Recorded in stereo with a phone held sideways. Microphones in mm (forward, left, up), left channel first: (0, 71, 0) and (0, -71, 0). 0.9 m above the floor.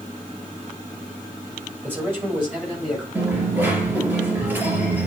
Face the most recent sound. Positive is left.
turn(degrees=-15)  # may be behind; listen again after turning